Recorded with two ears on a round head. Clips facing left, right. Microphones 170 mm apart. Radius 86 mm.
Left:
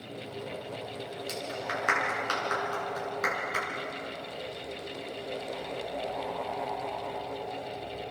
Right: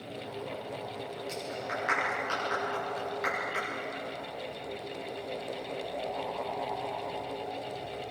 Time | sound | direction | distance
1.3 | a clap | 60° left (ahead or behind) | 8.5 m